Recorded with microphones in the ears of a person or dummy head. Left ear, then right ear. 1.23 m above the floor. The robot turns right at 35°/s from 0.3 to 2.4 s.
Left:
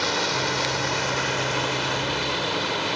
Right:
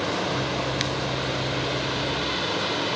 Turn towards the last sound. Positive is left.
turn(degrees=160)